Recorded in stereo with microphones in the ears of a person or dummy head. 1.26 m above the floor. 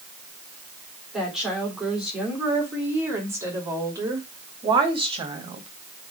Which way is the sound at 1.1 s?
Centre (ahead or behind).